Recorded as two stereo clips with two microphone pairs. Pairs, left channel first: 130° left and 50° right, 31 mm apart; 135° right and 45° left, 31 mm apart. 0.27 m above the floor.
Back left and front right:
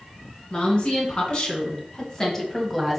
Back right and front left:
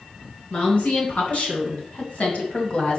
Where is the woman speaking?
175° right, 3.5 m; by 3.0 s 135° right, 1.6 m.